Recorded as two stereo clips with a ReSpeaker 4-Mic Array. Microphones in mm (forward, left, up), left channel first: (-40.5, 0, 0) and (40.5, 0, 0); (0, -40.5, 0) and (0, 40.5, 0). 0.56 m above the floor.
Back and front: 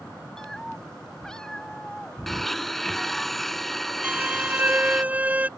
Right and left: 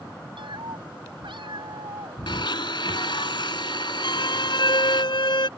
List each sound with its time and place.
0.4 s a cat meowing: 95° left; by 3.3 s 100° left
2.3 s a blender: 95° right
4.0 s a violin: 70° right